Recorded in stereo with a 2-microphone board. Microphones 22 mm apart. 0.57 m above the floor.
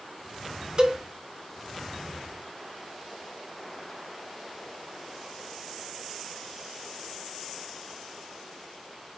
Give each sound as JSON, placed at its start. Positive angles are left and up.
{"t": 0.8, "sound": "a cowbell", "side_deg": -45, "distance_m": 1.4}